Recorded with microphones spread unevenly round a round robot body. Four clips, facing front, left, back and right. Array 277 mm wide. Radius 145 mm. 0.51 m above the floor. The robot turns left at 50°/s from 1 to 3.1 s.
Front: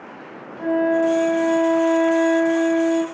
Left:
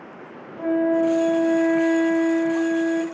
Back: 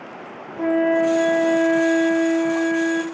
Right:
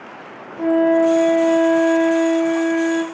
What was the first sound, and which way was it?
A flute, 150° right.